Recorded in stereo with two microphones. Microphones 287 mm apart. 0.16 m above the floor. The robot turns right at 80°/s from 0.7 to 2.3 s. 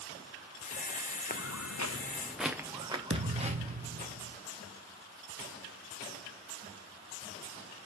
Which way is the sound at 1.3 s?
30° left (ahead or behind).